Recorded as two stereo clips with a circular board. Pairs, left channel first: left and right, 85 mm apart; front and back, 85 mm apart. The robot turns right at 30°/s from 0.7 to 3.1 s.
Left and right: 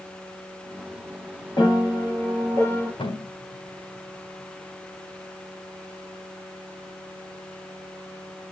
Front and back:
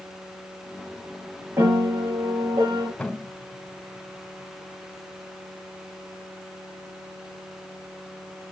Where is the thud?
80° left, 3.5 m.